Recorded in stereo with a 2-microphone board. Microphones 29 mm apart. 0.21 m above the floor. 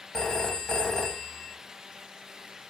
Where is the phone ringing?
20° left (ahead or behind), 0.6 m.